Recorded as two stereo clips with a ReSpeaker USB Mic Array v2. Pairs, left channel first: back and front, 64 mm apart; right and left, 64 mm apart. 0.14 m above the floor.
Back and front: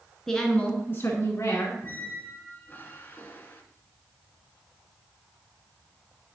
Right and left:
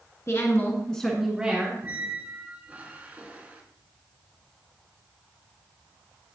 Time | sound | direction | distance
0.3 | a woman speaking | 100° right | 1.4 m
1.8 | a squeak | 145° left | 0.9 m